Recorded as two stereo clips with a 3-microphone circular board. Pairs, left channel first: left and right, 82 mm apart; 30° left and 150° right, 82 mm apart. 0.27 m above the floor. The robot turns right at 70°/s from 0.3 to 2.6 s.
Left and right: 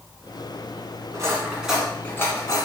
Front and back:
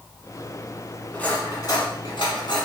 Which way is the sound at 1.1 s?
45° right.